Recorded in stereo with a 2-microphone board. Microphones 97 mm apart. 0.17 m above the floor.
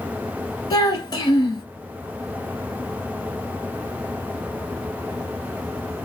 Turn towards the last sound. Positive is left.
turn(degrees=40)  # may be behind; listen again after turning